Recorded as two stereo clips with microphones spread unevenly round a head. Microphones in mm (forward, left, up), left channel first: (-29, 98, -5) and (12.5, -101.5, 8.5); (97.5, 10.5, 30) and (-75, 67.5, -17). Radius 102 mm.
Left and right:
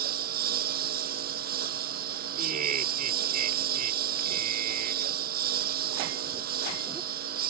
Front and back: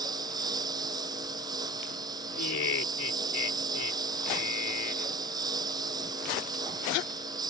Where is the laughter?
25° right.